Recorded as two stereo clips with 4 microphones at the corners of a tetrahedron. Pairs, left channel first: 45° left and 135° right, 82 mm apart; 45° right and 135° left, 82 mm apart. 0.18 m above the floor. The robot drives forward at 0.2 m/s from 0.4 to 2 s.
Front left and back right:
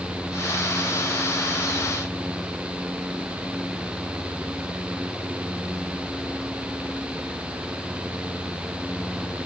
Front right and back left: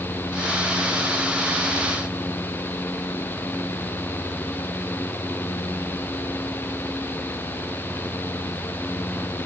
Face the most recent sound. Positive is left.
No sound to turn to.